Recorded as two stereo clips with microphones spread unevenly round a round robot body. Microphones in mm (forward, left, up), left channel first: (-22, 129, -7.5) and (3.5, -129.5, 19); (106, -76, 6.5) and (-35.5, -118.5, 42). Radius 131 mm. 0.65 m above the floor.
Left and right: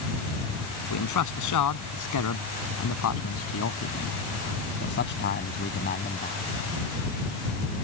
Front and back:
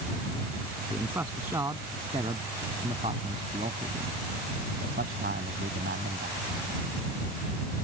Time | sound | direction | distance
0.9 | a man speaking | 110° left | ?